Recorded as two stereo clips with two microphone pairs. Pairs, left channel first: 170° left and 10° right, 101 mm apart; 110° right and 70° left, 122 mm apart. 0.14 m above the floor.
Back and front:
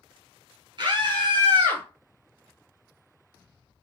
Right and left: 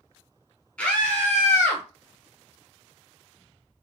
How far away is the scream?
About 2.5 m.